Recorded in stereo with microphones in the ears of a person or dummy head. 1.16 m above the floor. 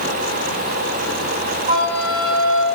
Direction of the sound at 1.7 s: 45° right (ahead or behind).